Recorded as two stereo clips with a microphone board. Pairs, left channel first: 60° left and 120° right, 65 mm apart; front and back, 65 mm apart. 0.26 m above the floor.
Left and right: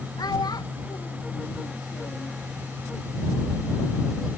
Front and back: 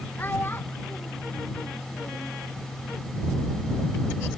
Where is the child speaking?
60° left; by 2.3 s 50° left.